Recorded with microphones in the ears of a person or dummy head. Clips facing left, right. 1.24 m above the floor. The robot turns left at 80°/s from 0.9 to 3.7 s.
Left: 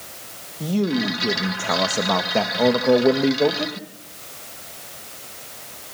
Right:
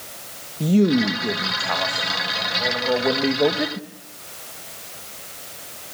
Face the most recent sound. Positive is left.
turn(degrees=-20)